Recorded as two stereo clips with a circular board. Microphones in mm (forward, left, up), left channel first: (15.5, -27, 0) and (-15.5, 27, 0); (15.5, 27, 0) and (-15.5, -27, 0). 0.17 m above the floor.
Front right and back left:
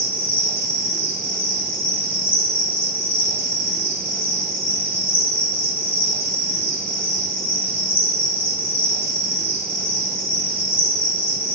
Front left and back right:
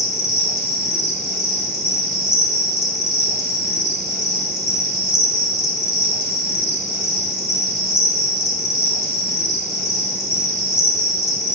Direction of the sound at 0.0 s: 35° right.